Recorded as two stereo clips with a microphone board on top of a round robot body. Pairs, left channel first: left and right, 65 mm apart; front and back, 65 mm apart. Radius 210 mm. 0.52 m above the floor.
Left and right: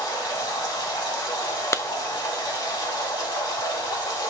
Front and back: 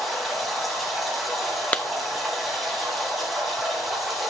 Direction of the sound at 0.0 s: 90° left.